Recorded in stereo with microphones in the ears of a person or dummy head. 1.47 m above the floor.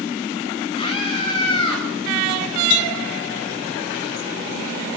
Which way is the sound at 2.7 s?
60° left (ahead or behind).